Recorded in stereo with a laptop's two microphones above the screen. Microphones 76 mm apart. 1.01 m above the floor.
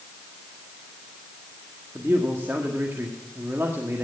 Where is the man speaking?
30° right (ahead or behind), 1.6 m.